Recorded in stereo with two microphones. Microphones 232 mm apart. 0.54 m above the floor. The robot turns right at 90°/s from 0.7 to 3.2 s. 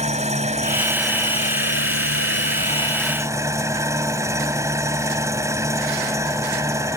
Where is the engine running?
30° right; by 7.0 s 165° right.